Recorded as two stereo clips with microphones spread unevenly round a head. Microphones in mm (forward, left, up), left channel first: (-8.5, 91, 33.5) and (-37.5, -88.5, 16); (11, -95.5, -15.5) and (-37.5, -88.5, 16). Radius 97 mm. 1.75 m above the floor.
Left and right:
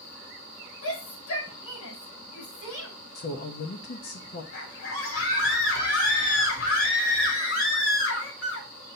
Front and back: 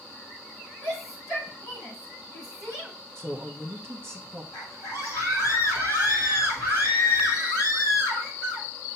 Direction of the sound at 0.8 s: 70° left.